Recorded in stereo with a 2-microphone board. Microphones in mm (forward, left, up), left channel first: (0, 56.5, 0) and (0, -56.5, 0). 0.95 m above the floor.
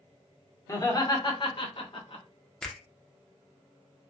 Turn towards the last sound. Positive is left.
turn(degrees=5)  # may be behind; listen again after turning